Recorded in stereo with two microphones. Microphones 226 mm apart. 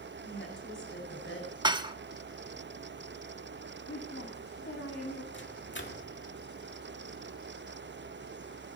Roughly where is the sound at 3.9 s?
Left.